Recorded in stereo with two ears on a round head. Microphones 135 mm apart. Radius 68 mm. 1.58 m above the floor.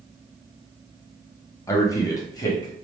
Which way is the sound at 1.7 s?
20° left (ahead or behind).